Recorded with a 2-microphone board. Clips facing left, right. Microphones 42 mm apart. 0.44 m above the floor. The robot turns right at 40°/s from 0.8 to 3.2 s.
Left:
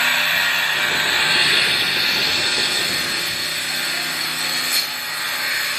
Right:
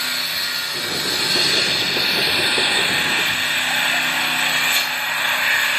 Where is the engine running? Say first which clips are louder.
Left 7 dB; 130° left, 3 m; by 5.8 s 130° right, 3 m.